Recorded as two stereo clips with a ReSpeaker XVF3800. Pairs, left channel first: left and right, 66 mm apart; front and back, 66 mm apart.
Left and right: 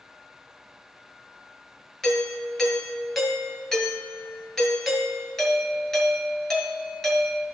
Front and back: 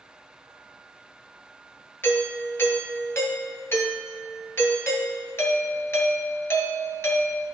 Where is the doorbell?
10° left, 1.8 m.